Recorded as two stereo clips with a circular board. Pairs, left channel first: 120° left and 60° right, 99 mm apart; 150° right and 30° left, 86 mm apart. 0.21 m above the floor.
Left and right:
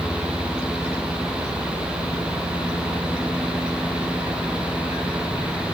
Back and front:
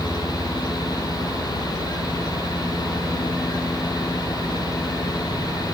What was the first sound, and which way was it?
Only background noise.